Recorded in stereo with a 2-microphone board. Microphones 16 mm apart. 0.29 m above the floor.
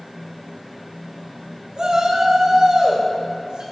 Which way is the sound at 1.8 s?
60° right (ahead or behind).